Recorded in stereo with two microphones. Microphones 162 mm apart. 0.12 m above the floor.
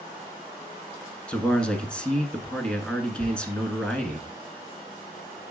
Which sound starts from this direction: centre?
A man speaking, at 1.3 s.